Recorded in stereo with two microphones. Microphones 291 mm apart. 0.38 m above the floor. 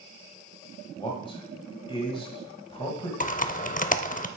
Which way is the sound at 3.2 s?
30° left (ahead or behind).